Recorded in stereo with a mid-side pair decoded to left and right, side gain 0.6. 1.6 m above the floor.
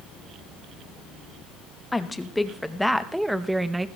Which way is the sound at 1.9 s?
10° left.